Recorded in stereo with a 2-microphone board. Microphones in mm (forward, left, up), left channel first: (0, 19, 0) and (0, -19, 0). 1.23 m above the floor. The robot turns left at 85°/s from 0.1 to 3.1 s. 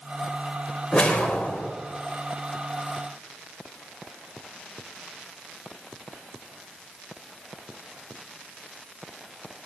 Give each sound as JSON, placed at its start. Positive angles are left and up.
{"t": 0.9, "sound": "a whoosh", "azimuth_deg": 130, "distance_m": 1.1}